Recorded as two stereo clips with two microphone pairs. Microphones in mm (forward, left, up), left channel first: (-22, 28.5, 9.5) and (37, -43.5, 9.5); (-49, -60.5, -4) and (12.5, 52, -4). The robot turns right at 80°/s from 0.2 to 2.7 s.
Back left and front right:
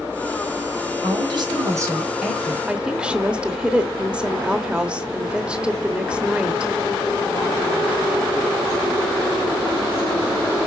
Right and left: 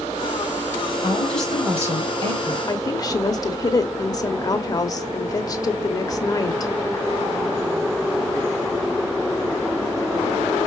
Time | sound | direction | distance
1.0 | a woman speaking | 65° right | 1.7 m
2.7 | a woman speaking | 120° right | 0.9 m